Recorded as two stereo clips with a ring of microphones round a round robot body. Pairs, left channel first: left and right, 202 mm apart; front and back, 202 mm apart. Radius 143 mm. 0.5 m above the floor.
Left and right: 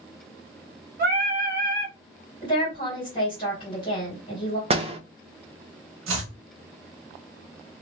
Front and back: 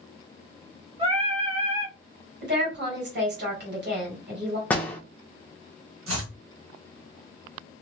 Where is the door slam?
75° right, 0.5 m.